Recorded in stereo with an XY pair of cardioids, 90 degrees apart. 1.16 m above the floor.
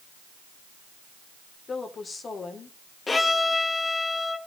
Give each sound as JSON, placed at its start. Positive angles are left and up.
{"t": 1.7, "sound": "a woman speaking", "azimuth_deg": 45, "distance_m": 3.0}
{"t": 3.1, "sound": "a violin", "azimuth_deg": 30, "distance_m": 1.3}